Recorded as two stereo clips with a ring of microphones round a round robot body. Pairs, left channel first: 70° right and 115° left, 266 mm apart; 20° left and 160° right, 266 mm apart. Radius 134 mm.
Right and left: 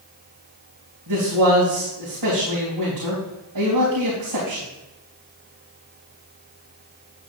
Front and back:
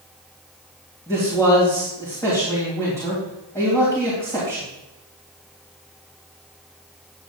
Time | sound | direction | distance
1.1 | a man speaking | 100° left | 3.5 m